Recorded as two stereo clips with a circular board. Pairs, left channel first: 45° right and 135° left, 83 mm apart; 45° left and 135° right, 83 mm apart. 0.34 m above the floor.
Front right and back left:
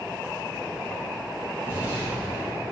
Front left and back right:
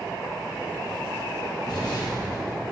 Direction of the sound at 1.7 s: 70° left.